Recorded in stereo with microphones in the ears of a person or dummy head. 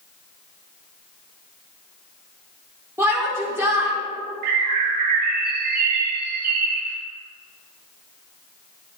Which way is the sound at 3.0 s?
15° right (ahead or behind).